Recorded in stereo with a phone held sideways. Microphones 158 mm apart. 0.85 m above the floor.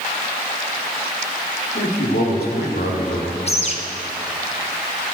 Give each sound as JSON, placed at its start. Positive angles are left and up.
{"t": 1.8, "sound": "a man speaking", "side_deg": 75, "distance_m": 2.0}
{"t": 3.5, "sound": "a bird", "side_deg": 40, "distance_m": 1.1}